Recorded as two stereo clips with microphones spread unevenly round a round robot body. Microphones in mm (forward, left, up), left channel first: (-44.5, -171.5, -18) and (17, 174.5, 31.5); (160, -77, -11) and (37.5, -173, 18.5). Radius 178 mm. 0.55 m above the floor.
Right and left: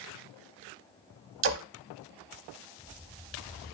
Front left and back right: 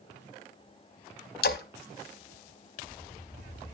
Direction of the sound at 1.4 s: 25° left.